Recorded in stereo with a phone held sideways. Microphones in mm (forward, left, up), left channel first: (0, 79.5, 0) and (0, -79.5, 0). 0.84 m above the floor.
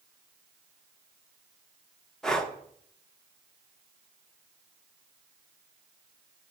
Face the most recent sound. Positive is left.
turn(degrees=5)  # may be behind; listen again after turning